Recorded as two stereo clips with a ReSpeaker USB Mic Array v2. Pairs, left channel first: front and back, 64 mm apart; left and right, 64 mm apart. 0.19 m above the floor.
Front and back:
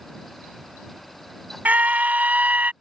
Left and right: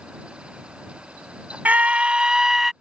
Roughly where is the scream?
Behind right.